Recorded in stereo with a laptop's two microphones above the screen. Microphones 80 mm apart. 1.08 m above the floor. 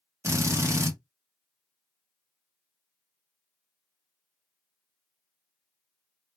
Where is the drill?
40° right (ahead or behind), 1.0 m.